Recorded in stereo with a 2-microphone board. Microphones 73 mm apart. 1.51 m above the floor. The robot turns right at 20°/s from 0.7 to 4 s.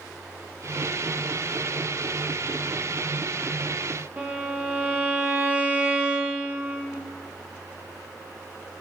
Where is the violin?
30° right (ahead or behind), 0.6 m.